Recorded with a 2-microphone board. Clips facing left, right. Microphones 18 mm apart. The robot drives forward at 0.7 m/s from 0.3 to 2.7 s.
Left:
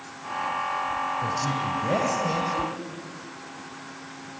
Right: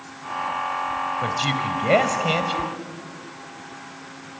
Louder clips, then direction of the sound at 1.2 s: Right 3 dB; 60° right (ahead or behind).